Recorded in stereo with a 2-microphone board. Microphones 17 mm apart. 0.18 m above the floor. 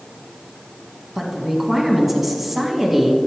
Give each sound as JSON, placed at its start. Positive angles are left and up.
{"t": 1.1, "sound": "a woman speaking", "side_deg": -10, "distance_m": 1.4}